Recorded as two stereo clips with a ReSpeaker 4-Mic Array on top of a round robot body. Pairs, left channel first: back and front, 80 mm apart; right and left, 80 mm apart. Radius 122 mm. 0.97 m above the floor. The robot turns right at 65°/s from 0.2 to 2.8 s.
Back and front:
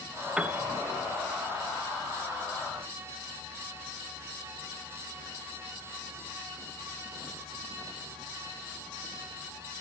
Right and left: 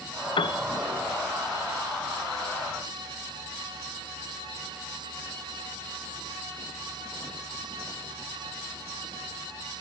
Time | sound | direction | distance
0.4 | a piano | 75° right | 0.6 m